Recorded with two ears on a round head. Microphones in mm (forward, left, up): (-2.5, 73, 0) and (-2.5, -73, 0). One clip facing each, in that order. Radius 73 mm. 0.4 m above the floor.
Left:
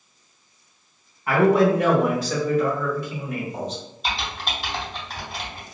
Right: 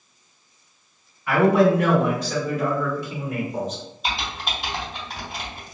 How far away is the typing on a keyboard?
About 1.9 m.